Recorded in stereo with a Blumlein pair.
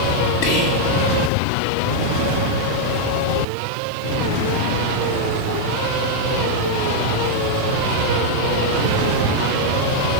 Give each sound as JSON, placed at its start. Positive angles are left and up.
{"t": 0.4, "sound": "whispering", "azimuth_deg": 45, "distance_m": 2.5}